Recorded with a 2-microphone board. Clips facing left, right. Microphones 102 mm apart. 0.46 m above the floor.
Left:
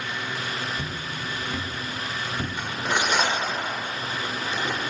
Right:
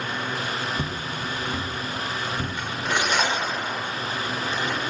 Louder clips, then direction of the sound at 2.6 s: Left 1 dB; 10° left (ahead or behind).